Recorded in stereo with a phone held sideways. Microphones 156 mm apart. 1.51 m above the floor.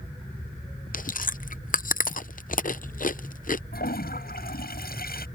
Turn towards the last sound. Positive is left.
turn(degrees=75)  # may be behind; listen again after turning